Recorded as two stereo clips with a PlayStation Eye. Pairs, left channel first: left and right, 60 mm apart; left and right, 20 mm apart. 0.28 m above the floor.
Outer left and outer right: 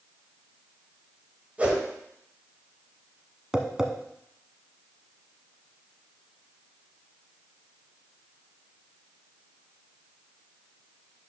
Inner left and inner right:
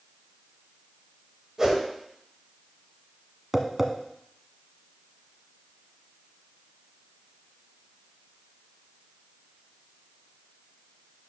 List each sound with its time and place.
1.6 s a whoosh: 25° right (ahead or behind), 1.3 m
3.5 s tapping: 10° right (ahead or behind), 0.8 m